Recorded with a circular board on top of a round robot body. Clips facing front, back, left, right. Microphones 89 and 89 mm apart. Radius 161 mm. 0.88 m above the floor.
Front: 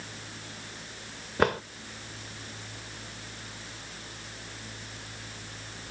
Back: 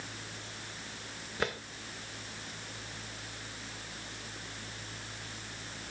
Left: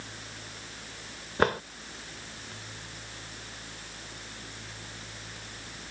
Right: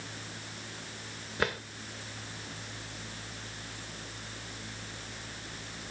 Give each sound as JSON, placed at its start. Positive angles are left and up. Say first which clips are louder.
{"t": 1.4, "sound": "a drawer", "louder": "front 10 dB, left 7 dB", "azimuth_deg": 40}